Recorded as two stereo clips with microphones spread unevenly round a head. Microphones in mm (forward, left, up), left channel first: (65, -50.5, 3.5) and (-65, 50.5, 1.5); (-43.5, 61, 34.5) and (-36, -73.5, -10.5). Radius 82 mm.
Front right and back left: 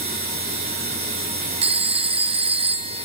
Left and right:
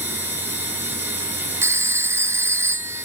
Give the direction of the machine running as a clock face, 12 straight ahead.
5 o'clock.